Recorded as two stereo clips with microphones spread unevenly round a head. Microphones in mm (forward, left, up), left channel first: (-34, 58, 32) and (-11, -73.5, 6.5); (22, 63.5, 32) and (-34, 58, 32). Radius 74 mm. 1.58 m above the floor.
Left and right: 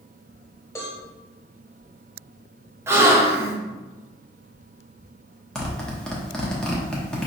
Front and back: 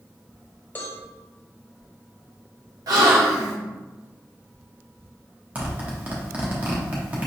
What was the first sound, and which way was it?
A cowbell, 45° left.